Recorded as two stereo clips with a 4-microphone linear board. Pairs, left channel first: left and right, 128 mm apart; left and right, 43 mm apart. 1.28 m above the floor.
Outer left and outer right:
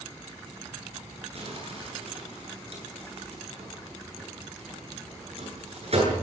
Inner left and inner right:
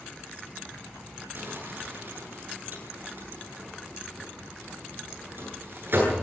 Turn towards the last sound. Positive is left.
turn(degrees=-55)  # may be behind; listen again after turning